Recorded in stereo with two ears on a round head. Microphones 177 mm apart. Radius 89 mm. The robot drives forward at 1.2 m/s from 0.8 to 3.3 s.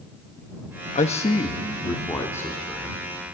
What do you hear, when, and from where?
0.9 s a man speaking: 40° left (ahead or behind), 1.0 m; by 3.0 s 10° left (ahead or behind), 3 m